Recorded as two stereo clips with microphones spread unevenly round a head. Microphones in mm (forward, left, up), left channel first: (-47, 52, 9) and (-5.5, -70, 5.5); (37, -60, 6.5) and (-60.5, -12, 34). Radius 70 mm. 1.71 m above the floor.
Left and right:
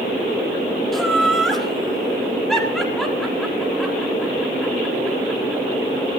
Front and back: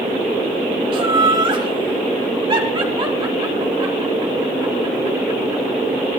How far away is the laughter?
About 4.5 m.